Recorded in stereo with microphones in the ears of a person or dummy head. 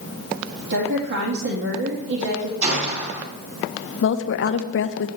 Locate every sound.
0.7 s a woman speaking: 70° right (ahead or behind), 1.7 m
2.6 s a gunshot: 40° right (ahead or behind), 3 m
4.0 s a woman speaking: 55° left (ahead or behind), 0.8 m